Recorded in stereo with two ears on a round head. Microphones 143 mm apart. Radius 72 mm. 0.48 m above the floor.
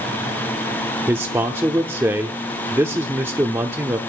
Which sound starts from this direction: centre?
A man speaking, at 1.1 s.